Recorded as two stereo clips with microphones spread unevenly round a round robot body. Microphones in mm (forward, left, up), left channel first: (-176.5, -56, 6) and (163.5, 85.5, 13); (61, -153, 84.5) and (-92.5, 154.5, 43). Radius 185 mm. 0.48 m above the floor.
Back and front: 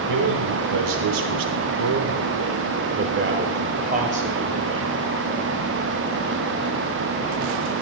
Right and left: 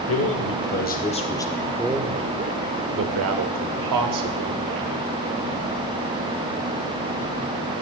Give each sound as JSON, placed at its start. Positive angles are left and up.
{"t": 0.1, "sound": "a man speaking", "azimuth_deg": -15, "distance_m": 1.6}